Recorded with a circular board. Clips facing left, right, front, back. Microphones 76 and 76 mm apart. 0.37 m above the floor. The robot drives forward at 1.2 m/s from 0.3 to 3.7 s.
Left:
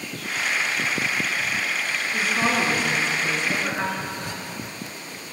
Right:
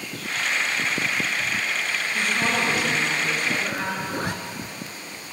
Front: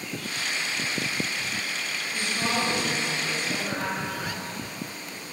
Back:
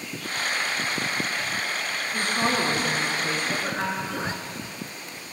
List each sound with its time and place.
2.1 s a woman speaking: 135° left, 4 m; by 4.0 s 150° left, 5.5 m
4.1 s a zipper: 120° right, 0.6 m